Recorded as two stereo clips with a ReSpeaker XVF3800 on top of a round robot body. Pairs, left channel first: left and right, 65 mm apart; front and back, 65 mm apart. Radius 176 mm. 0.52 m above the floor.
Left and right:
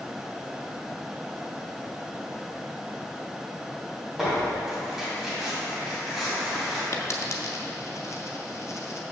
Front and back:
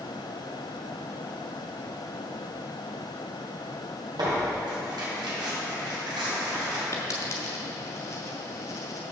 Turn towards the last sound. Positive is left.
turn(degrees=45)